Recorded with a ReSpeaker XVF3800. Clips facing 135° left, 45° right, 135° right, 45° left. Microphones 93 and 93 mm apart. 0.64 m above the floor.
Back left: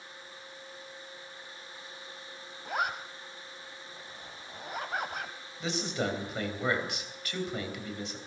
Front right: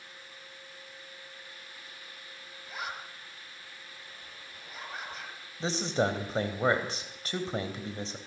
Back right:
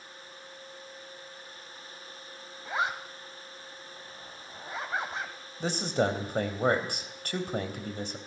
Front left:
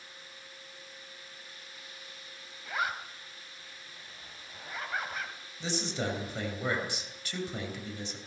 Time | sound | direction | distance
2.6 | a zipper | 160° left | 2.5 m
5.6 | a man speaking | 100° right | 3.5 m